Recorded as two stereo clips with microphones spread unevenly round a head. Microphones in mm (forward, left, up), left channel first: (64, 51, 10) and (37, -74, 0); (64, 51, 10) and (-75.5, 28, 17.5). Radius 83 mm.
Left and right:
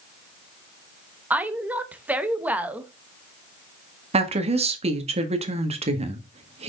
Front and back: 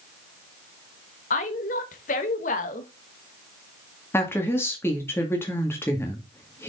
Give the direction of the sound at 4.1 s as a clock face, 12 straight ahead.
2 o'clock.